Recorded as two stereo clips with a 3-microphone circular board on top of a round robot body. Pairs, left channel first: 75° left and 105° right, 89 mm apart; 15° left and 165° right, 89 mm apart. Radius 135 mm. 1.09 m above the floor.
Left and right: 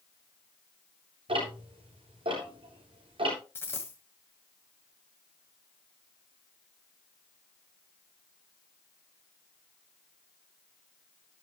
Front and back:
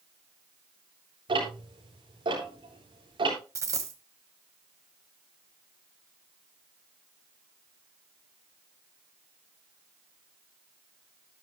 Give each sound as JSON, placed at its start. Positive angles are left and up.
{"t": 1.3, "sound": "ticking", "azimuth_deg": -130, "distance_m": 7.5}
{"t": 3.5, "sound": "a dropped coin", "azimuth_deg": 145, "distance_m": 1.3}